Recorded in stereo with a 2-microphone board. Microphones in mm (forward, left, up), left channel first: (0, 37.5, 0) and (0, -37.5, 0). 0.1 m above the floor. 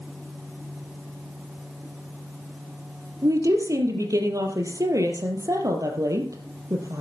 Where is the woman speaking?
50° right (ahead or behind), 3 m.